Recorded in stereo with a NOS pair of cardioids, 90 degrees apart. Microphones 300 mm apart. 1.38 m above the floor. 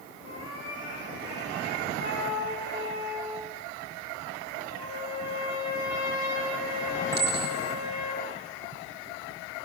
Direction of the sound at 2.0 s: 65° left.